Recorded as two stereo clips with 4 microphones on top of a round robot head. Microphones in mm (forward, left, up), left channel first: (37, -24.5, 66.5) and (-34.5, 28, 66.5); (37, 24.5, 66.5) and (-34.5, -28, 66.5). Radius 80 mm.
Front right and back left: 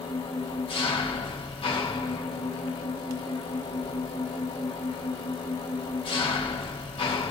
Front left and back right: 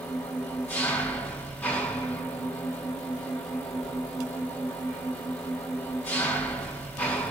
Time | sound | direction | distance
0.0 | an engine running | 35° right | 2.5 m